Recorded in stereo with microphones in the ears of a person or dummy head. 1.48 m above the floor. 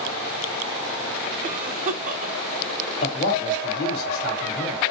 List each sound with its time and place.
1.4 s a cough: 45° right (ahead or behind), 1.2 m
3.0 s a man speaking: 50° left (ahead or behind), 3 m